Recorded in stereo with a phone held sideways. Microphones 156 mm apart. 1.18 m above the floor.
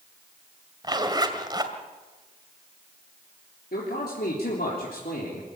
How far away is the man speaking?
About 3.5 m.